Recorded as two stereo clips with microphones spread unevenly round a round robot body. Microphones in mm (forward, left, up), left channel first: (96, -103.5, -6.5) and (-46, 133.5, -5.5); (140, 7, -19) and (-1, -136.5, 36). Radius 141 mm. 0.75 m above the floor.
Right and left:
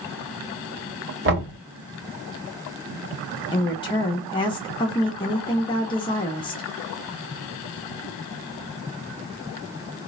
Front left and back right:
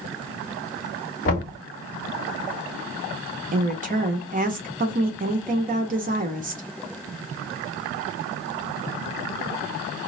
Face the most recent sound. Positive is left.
turn(degrees=-110)